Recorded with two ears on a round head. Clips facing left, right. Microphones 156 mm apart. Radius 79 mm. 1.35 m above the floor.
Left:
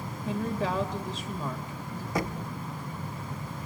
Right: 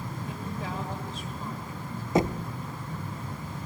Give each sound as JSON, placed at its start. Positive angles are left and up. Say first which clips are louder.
{"t": 0.2, "sound": "a woman speaking", "louder": "left 9 dB", "side_deg": 60, "distance_m": 2.5}
{"t": 2.1, "sound": "knocking", "louder": "right 7 dB", "side_deg": -20, "distance_m": 0.8}